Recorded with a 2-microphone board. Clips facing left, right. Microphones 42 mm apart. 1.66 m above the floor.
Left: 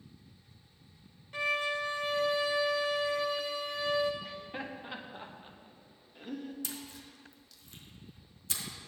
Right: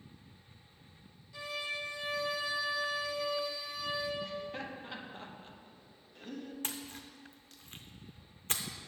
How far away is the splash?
About 0.5 m.